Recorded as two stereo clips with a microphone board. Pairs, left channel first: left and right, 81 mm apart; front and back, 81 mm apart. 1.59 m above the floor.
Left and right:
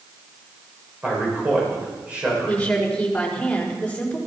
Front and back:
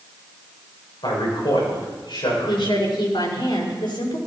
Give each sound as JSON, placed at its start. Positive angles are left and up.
{"t": 1.0, "sound": "a man speaking", "azimuth_deg": -20, "distance_m": 7.0}
{"t": 2.5, "sound": "a woman speaking", "azimuth_deg": 10, "distance_m": 5.0}